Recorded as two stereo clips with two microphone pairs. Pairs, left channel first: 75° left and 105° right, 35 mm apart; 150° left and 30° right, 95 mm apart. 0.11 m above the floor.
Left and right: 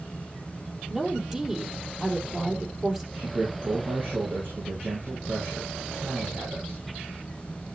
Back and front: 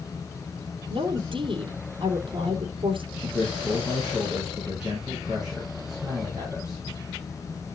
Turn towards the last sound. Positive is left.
turn(degrees=-115)